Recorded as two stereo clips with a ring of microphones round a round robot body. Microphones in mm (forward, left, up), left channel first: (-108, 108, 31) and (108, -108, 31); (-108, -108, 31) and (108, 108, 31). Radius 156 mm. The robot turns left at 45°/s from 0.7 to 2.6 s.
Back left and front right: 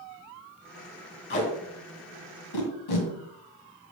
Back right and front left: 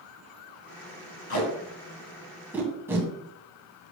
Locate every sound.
1.3 s tape being pulled: 175° right, 2.5 m; by 3.1 s 125° left, 2.5 m